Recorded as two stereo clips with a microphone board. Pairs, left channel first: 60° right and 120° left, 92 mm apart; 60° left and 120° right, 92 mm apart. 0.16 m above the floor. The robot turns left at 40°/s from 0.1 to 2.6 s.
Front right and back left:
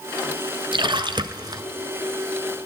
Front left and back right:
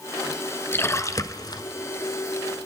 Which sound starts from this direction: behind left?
A splash, at 0.7 s.